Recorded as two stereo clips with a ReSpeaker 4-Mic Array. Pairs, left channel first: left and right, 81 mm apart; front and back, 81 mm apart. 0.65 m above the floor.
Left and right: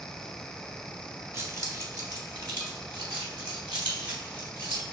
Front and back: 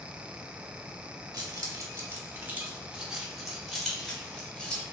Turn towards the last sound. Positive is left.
turn(degrees=-75)